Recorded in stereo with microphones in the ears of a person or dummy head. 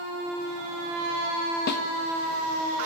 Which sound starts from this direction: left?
A snare drum, at 1.7 s.